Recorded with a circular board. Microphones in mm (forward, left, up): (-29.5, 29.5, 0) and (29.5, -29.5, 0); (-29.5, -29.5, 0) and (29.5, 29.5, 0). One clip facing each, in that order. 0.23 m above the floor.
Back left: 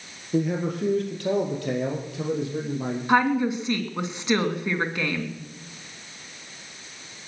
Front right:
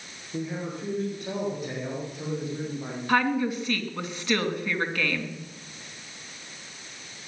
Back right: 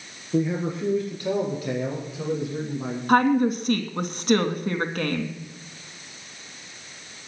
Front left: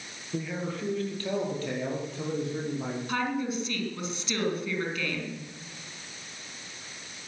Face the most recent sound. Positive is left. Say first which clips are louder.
# back left 3 dB, back right 13 dB
turn(degrees=-155)